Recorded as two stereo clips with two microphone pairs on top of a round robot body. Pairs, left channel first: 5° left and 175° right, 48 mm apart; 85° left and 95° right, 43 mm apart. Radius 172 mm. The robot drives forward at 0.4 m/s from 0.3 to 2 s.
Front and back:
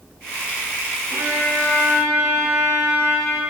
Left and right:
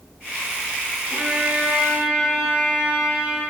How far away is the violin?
About 0.7 m.